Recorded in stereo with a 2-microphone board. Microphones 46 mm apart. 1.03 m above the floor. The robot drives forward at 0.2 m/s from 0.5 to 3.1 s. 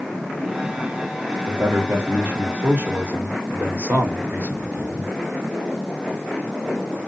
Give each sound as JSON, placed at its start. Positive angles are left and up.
{"t": 1.5, "sound": "a man speaking", "side_deg": -50, "distance_m": 1.1}